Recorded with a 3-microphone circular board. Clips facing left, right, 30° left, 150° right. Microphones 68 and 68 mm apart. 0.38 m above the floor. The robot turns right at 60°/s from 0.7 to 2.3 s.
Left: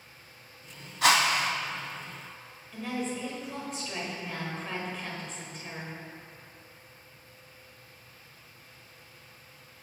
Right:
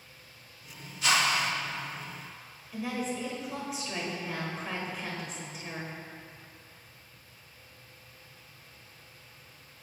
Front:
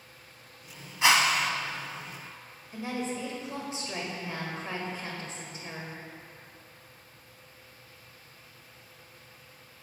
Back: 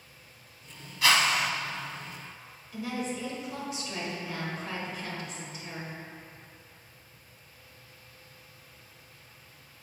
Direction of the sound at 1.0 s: 95° left.